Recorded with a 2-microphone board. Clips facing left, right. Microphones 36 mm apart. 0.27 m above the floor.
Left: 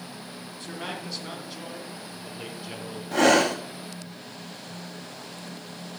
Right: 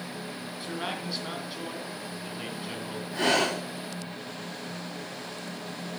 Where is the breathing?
65° left (ahead or behind), 1.9 m.